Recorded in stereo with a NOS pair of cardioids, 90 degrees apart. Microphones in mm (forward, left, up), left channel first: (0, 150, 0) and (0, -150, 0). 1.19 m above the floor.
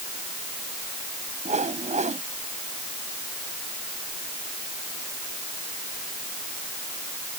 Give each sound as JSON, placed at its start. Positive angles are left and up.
{"t": 1.4, "sound": "a whoosh", "azimuth_deg": -25}